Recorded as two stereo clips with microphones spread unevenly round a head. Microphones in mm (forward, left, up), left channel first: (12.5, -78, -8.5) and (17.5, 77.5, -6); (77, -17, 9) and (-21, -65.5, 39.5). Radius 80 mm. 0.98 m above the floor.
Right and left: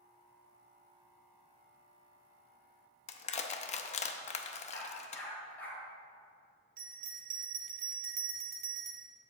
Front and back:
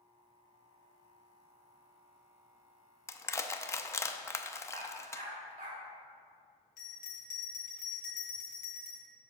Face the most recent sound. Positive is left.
turn(degrees=65)